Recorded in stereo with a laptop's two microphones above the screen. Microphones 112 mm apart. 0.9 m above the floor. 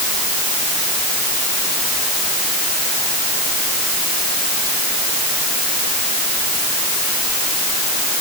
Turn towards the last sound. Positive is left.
No sound to turn to.